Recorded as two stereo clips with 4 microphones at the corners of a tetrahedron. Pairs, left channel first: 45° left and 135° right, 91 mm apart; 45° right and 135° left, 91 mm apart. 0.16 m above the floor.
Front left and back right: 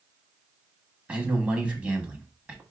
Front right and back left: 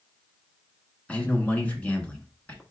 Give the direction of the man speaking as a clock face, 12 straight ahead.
3 o'clock.